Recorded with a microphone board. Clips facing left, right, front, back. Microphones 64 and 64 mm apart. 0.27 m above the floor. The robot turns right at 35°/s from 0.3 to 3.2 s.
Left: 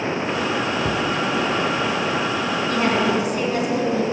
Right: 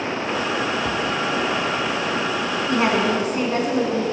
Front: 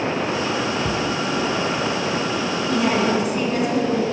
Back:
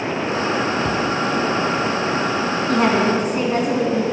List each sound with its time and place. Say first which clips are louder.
0.8 s a cupboard door: left 1 dB, back 2 dB; 65° left, 0.8 m; by 1.1 s 75° left, 0.8 m
2.7 s a woman speaking: right 1 dB, back 2 dB; 155° right, 3 m; by 4.0 s 135° right, 3 m